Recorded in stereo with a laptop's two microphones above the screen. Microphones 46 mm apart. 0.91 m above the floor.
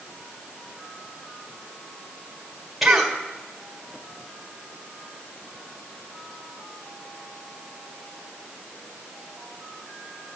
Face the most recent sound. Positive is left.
turn(degrees=-5)  # may be behind; listen again after turning